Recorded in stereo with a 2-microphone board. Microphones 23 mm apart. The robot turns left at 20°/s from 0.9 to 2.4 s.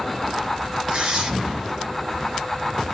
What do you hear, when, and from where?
0.9 s tearing paper: 45° right (ahead or behind), 1.0 m; by 1.3 s 40° right (ahead or behind), 1.0 m